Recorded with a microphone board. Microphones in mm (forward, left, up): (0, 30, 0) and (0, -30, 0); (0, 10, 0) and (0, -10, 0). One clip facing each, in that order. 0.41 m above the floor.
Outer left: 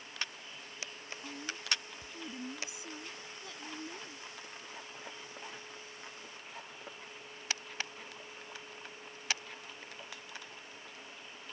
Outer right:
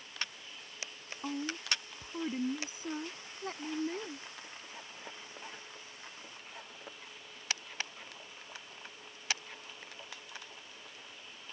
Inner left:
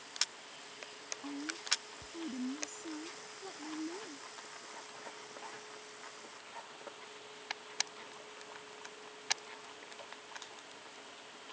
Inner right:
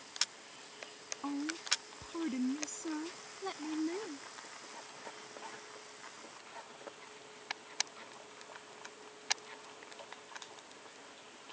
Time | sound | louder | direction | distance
1.2 | a woman speaking | outer right 4 dB, inner right 2 dB | 45° right (ahead or behind) | ?